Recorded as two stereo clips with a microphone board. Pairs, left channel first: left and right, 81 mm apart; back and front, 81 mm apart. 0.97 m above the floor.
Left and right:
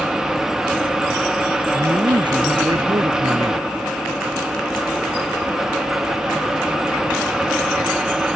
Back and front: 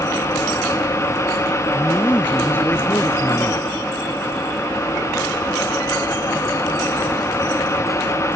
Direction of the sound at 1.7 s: 115° right.